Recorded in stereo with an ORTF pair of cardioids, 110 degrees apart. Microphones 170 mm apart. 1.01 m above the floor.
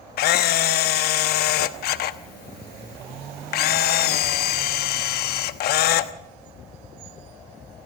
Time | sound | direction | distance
0.2 | a camera shutter | 70° left | 1.1 m